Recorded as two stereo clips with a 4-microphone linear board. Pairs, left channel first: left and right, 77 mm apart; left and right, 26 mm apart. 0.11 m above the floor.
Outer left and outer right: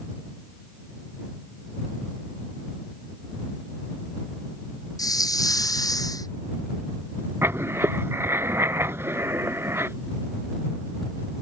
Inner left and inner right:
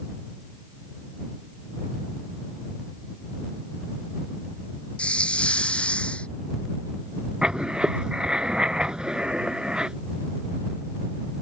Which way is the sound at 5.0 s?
50° left (ahead or behind).